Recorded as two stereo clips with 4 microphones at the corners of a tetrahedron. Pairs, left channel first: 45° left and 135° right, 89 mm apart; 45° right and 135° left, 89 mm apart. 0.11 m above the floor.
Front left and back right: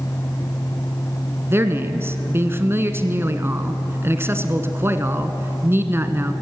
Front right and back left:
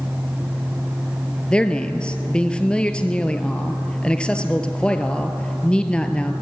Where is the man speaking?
110° right, 1.2 m.